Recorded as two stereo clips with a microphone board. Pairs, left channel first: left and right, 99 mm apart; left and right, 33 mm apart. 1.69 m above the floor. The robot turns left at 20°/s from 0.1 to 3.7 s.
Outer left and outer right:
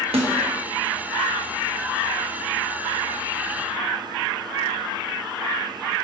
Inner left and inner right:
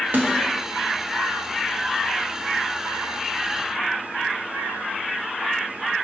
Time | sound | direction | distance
0.1 | a snare drum | 80° right | 1.1 m